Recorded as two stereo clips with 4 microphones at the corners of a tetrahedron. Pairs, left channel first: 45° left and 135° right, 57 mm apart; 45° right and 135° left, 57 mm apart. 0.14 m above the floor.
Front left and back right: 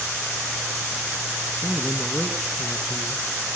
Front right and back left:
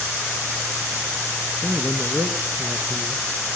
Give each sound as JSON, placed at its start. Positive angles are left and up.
{"t": 1.6, "sound": "a man speaking", "azimuth_deg": 115, "distance_m": 1.8}